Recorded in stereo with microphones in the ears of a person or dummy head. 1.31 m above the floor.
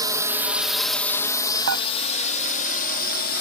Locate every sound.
0.0 s a drone: 20° right (ahead or behind); by 3.4 s 55° left (ahead or behind)
1.7 s dishes clattering: 75° right (ahead or behind)